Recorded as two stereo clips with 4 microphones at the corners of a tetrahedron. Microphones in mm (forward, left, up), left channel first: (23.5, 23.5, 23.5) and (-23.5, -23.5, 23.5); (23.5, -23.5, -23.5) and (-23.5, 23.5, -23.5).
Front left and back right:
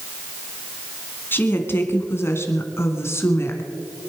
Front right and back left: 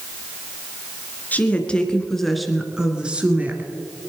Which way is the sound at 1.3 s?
10° left.